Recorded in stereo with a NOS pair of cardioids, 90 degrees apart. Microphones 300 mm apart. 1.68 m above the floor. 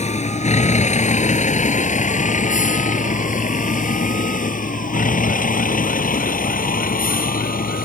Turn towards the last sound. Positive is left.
turn(degrees=30)